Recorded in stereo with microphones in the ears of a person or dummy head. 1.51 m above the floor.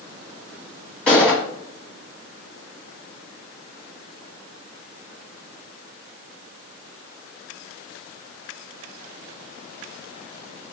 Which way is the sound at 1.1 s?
5° left (ahead or behind).